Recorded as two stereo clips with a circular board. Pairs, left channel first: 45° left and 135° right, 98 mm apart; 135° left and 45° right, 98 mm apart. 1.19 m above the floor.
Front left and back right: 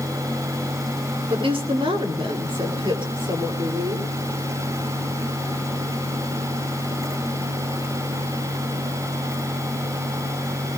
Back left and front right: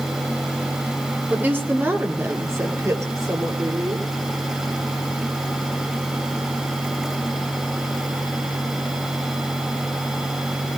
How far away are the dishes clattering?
I don't hear dishes clattering.